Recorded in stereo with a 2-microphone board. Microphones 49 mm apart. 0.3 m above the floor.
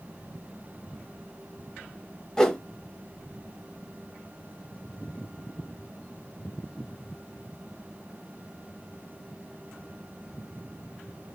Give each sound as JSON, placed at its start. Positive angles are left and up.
{"t": 2.4, "sound": "a whoosh", "side_deg": 15, "distance_m": 1.3}